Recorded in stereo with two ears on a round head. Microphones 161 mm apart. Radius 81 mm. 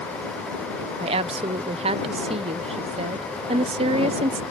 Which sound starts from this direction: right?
A woman speaking, at 1.0 s.